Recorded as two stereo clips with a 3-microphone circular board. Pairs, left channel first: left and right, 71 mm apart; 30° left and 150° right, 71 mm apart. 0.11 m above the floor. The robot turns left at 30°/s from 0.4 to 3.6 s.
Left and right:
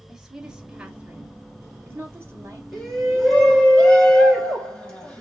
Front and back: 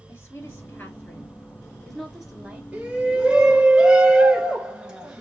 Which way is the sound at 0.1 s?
10° right.